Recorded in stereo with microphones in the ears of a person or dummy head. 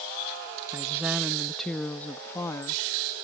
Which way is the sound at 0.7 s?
15° right (ahead or behind).